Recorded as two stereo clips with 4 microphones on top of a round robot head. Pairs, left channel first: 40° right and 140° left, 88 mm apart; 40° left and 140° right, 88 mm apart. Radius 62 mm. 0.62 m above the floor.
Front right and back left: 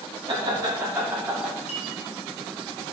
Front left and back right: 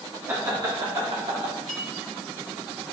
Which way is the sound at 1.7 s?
45° right.